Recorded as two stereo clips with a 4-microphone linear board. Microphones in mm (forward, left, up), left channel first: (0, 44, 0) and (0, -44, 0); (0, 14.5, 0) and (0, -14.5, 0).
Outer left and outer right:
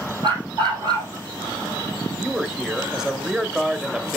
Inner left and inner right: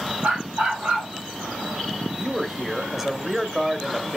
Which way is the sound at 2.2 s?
5° right (ahead or behind).